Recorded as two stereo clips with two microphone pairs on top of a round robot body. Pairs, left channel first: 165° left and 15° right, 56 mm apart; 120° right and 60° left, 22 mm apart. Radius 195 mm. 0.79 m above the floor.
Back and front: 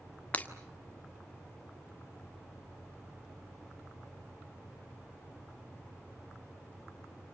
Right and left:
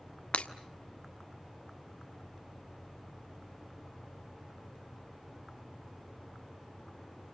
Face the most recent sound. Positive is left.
turn(degrees=-130)